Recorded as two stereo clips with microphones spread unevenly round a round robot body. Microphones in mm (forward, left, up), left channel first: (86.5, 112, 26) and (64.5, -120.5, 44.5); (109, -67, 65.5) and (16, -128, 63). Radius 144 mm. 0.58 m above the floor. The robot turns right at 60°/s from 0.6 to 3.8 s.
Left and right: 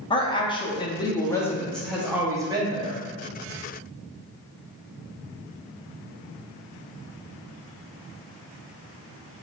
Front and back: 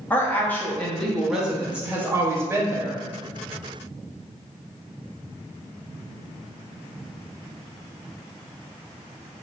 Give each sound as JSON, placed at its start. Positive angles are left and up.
{"t": 0.1, "sound": "a woman speaking", "azimuth_deg": 90, "distance_m": 0.8}